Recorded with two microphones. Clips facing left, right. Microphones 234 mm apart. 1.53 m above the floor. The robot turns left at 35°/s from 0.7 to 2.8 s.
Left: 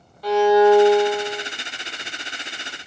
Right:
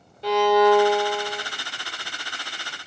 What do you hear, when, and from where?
0.2 s a violin: 25° right (ahead or behind), 1.3 m; by 1.4 s centre (ahead or behind), 1.3 m